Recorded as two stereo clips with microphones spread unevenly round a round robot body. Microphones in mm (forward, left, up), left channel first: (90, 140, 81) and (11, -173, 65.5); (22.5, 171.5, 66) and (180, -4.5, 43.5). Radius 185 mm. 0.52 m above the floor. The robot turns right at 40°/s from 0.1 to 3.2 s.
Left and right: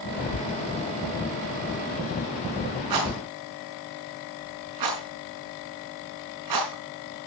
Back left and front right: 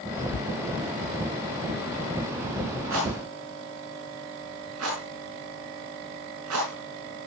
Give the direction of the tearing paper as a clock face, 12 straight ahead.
8 o'clock.